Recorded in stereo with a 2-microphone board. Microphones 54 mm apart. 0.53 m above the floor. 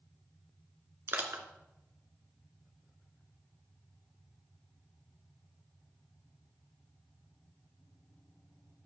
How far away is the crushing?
About 1.4 m.